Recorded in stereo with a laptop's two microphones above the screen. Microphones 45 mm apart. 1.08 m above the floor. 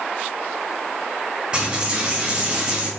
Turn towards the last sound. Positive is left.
turn(degrees=-20)  # may be behind; listen again after turning